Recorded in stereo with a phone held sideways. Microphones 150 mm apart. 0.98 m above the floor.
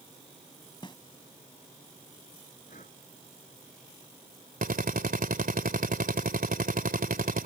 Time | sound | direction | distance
0.8 | a snare drum | 35° left (ahead or behind) | ?
2.7 | breathing | 60° left (ahead or behind) | ?
4.6 | a drill | 70° right (ahead or behind) | ?